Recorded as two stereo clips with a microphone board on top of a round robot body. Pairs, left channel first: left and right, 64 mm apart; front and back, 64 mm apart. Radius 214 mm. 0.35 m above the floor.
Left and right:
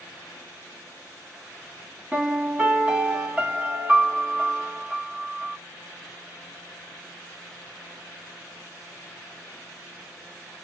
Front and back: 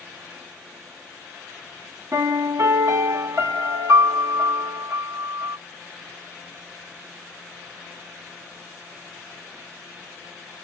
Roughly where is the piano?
Behind.